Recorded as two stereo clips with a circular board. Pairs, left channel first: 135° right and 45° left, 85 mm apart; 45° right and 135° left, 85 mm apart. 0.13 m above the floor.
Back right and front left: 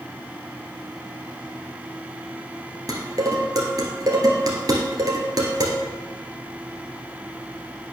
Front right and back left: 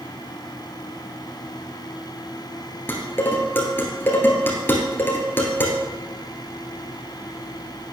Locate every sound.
2.9 s dishes clattering: 15° left, 1.6 m